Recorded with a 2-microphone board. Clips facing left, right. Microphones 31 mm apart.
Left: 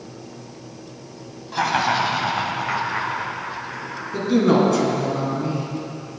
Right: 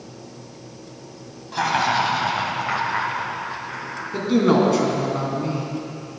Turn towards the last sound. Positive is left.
turn(degrees=-15)  # may be behind; listen again after turning